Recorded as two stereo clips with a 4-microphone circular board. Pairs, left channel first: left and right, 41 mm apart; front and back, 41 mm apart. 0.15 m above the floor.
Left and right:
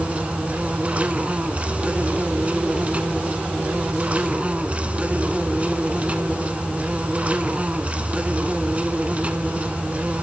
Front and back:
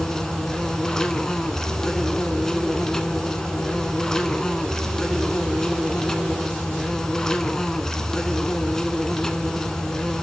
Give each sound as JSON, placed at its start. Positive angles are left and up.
{"t": 0.0, "sound": "an insect", "azimuth_deg": -65, "distance_m": 1.0}